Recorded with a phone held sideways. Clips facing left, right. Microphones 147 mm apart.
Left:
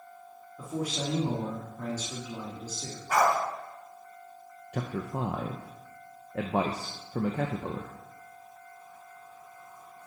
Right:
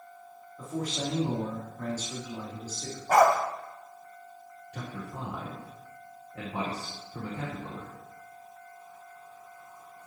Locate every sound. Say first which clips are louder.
0.6 s a man speaking: even; 10° left (ahead or behind), 1.9 m
3.1 s a dog barking: right 4 dB; 50° right (ahead or behind), 1.5 m
4.7 s a man speaking: left 6 dB; 65° left (ahead or behind), 0.8 m